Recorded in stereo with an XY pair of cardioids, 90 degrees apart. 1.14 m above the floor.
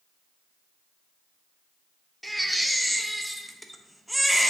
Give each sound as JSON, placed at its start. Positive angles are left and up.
{"t": 2.2, "sound": "a baby crying", "azimuth_deg": 0, "distance_m": 0.8}